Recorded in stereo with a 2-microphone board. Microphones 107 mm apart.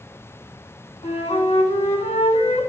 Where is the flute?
80° left, 4.5 m.